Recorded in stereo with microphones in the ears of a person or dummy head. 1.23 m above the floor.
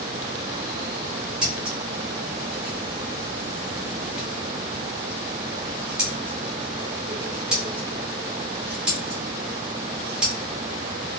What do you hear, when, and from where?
1.4 s scissors: 5° right (ahead or behind), 0.7 m